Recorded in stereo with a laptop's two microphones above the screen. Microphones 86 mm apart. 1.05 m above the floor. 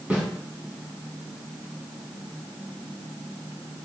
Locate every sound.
0.1 s a snare drum: 15° right (ahead or behind), 4 m